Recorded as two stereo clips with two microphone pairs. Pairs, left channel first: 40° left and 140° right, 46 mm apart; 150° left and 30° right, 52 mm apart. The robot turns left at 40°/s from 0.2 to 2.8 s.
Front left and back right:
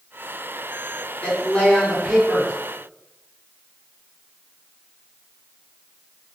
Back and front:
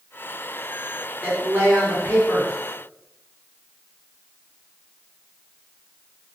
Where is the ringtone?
I don't hear a ringtone.